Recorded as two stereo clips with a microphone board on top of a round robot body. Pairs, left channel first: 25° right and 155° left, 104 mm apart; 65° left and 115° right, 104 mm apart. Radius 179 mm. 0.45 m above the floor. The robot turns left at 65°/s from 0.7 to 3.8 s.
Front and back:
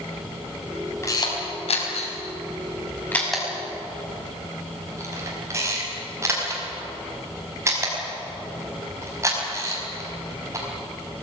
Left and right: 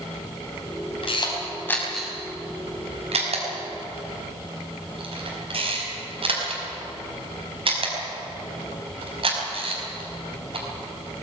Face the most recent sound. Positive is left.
turn(degrees=-140)